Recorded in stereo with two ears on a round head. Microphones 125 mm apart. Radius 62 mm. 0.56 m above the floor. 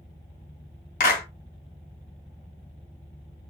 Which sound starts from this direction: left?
A clap, at 1.0 s.